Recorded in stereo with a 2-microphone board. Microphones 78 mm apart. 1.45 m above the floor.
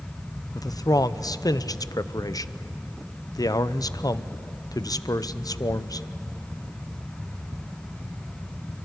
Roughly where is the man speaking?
Left.